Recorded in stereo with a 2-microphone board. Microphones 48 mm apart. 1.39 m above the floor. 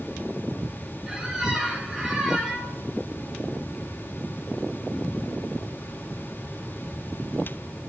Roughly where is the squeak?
Centre.